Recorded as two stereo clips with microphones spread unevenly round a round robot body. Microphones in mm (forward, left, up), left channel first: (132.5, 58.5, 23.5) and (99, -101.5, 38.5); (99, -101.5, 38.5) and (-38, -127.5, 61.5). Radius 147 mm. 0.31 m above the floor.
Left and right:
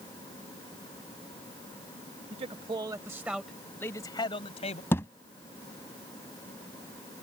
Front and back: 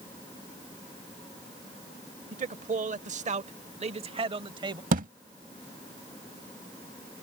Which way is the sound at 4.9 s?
155° left.